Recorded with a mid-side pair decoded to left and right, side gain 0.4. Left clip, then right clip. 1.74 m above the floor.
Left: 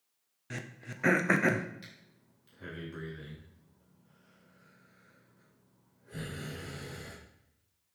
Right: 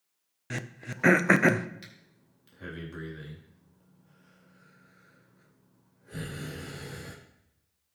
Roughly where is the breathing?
Ahead right.